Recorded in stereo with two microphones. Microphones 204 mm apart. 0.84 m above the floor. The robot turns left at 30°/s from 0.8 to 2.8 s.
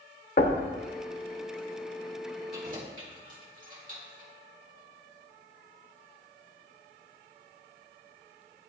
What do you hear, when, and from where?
0.4 s knocking: 45° left (ahead or behind), 0.7 m
2.5 s keys jangling: 50° right (ahead or behind), 1.7 m; by 4.3 s 40° right (ahead or behind), 1.7 m